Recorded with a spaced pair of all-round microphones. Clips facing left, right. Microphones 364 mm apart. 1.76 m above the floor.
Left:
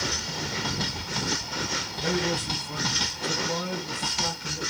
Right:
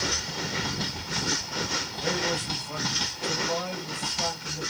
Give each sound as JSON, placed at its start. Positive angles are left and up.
{"t": 1.9, "sound": "a man speaking", "side_deg": 40, "distance_m": 1.8}